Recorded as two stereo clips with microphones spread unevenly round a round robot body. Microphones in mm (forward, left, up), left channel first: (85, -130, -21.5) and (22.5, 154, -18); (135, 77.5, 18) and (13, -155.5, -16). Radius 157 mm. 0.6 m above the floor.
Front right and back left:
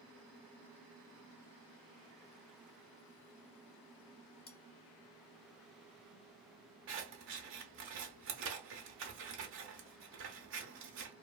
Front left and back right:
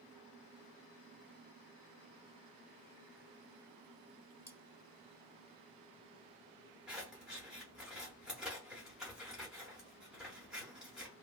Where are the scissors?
155° left, 0.5 m.